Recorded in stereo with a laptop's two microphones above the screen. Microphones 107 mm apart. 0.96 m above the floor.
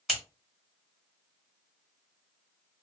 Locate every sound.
0.1 s scissors: centre (ahead or behind), 1.3 m